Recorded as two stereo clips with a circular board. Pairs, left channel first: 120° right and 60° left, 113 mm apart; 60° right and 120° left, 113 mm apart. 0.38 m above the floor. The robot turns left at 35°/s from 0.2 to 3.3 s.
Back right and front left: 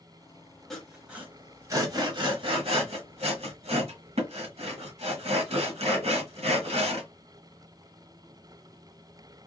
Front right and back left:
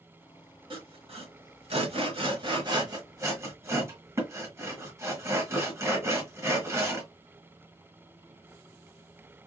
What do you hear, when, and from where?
0.7 s sawing: 150° left, 1.2 m; by 7.1 s 60° left, 1.2 m